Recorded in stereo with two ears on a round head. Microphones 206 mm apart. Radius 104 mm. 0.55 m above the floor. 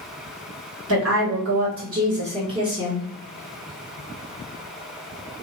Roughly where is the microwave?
I don't hear a microwave.